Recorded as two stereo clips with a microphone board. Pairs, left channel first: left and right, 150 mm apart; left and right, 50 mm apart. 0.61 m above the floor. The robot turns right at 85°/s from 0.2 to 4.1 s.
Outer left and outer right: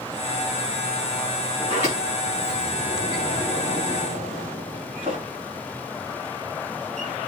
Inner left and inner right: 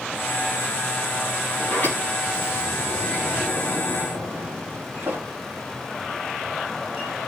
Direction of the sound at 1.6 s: 25° left (ahead or behind).